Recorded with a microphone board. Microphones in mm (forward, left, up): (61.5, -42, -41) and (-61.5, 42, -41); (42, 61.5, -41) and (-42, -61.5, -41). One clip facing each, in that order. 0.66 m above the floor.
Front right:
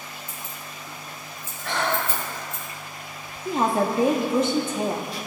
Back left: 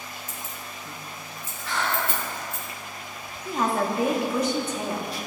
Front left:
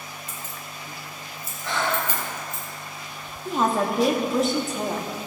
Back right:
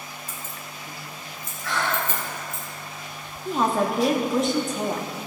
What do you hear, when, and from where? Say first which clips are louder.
0.3 s keys jangling: even, even; 160° left, 2 m; by 2.6 s 125° left, 3 m
1.6 s breathing: front right 2 dB, front left 1 dB; 10° right, 1.5 m
3.5 s a woman speaking: front right 3 dB, even; 30° right, 0.9 m